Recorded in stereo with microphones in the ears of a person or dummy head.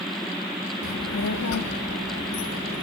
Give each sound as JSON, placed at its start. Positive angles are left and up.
{"t": 0.8, "sound": "a child speaking", "side_deg": 60, "distance_m": 1.5}